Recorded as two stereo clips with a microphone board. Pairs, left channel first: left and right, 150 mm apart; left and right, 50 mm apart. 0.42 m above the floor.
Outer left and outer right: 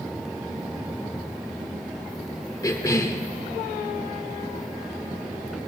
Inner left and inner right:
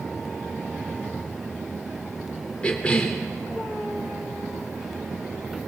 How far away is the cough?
About 0.8 m.